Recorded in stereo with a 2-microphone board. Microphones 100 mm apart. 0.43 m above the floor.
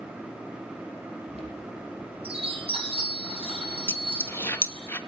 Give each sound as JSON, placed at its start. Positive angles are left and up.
{"t": 1.3, "sound": "a chime", "side_deg": -65, "distance_m": 5.5}
{"t": 3.9, "sound": "a dropped coin", "side_deg": 25, "distance_m": 0.9}